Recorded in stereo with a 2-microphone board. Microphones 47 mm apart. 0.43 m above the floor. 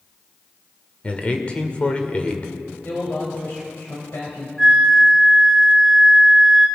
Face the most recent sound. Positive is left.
turn(degrees=0)  # may be behind; listen again after turning